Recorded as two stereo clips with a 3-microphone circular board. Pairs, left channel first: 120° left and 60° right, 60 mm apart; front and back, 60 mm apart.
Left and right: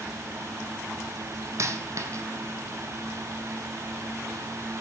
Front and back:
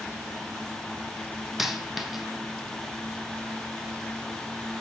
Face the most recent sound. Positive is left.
turn(degrees=-95)